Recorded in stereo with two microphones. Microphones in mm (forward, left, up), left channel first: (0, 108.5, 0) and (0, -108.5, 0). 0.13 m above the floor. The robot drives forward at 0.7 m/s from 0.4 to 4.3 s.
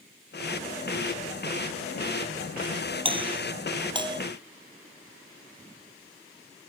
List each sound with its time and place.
3.0 s a doorbell: 25° right (ahead or behind); by 4.2 s 20° right (ahead or behind)